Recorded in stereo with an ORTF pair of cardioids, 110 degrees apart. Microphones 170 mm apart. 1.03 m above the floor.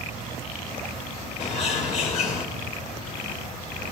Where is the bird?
45° left, 3.5 m.